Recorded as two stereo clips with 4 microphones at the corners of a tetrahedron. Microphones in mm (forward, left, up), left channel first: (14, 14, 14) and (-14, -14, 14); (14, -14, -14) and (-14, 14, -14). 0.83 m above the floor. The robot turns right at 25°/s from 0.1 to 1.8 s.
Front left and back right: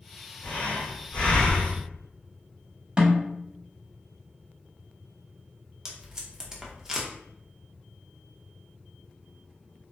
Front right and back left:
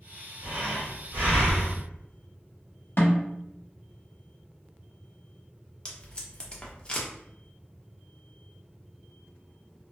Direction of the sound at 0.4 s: 90° left.